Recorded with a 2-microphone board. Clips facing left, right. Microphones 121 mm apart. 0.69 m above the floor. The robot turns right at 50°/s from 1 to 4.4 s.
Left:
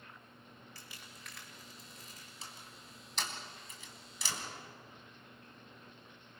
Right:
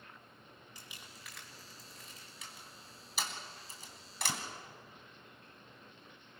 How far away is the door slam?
About 3 m.